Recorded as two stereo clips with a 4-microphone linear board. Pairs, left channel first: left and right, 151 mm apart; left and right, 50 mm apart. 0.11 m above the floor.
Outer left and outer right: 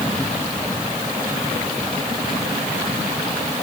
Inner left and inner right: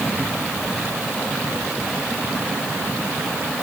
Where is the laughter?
I don't hear laughter.